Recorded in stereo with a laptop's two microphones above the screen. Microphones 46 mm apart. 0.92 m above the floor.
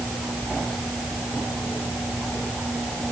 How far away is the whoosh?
No whoosh in this recording.